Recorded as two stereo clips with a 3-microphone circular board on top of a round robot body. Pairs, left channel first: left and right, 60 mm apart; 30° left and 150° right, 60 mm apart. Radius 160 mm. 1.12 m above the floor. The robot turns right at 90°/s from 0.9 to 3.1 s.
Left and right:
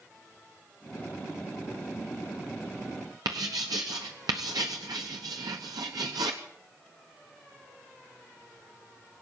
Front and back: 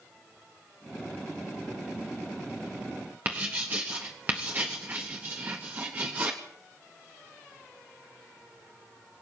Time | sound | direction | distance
3.2 | writing | 90° right | 0.6 m